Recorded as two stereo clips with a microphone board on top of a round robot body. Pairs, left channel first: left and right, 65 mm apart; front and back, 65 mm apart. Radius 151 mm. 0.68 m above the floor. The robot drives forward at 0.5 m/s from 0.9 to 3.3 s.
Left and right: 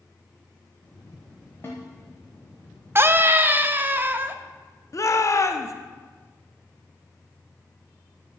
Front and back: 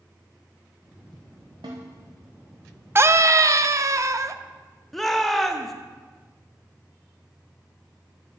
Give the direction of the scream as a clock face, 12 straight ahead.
4 o'clock.